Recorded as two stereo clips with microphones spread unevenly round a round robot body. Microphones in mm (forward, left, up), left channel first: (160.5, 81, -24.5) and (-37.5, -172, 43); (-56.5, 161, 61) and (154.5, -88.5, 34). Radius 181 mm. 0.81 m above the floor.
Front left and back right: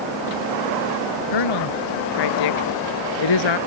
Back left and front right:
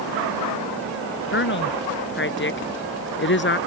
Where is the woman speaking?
75° left.